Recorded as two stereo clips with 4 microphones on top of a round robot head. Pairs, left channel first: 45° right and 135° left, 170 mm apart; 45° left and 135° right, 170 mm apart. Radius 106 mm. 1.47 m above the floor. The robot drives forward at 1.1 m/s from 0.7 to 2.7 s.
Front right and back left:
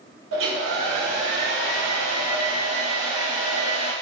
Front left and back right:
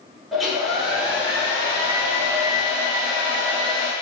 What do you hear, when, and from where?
0.3 s a hair dryer: 135° left, 2 m; by 3.9 s 160° left, 4 m